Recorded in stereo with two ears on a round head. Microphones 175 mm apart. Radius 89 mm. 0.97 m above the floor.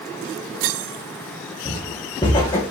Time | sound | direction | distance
1.6 | footsteps | 25° left (ahead or behind) | 4 m